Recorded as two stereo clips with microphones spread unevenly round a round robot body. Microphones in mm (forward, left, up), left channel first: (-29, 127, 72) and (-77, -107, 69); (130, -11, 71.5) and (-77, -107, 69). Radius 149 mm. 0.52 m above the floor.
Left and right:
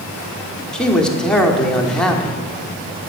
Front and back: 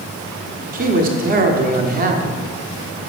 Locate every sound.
0.7 s a man speaking: 165° left, 1.4 m